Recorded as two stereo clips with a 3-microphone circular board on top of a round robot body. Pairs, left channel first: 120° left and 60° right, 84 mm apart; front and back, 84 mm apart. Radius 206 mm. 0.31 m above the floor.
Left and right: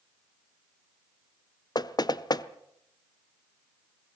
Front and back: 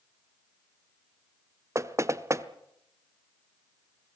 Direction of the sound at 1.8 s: 135° left.